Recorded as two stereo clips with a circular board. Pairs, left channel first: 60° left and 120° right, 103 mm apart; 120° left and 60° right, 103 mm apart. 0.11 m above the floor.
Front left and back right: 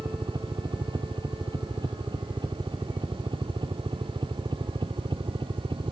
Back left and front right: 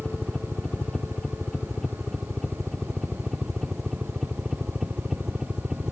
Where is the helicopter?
160° right; by 5.9 s 140° right.